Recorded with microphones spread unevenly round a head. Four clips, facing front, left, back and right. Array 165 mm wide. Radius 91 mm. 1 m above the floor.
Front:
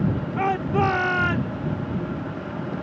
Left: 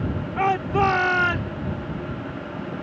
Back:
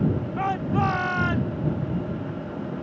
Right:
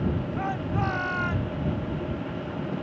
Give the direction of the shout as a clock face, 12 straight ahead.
10 o'clock.